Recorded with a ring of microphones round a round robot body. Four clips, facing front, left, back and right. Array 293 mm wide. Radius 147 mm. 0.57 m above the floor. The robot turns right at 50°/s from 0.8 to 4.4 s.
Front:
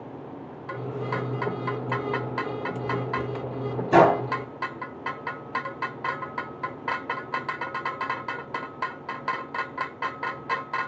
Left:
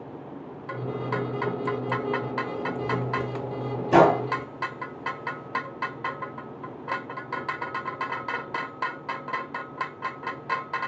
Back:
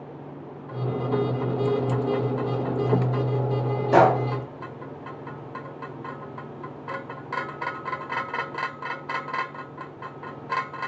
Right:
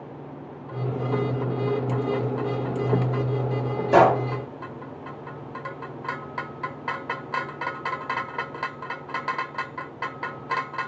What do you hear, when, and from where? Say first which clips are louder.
3.9 s a gunshot: right 1 dB, even; 50° left, 1.5 m; by 4.2 s 65° left, 1.5 m